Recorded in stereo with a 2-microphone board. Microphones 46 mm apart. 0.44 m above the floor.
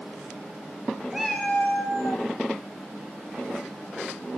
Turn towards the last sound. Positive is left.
turn(degrees=75)  # may be behind; listen again after turning